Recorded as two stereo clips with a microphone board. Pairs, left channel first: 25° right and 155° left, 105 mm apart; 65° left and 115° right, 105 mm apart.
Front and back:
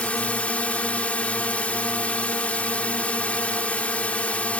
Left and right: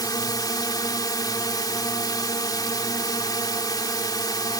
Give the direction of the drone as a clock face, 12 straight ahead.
10 o'clock.